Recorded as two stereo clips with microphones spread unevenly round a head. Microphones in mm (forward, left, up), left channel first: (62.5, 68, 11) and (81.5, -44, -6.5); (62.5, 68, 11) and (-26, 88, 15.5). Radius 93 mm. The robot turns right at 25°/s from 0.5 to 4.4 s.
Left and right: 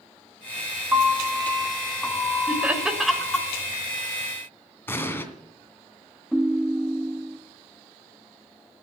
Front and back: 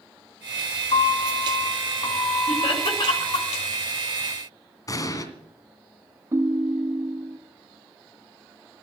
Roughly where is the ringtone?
Behind.